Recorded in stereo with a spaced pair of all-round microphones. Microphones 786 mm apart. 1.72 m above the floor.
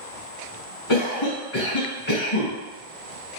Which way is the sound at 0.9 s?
35° left (ahead or behind).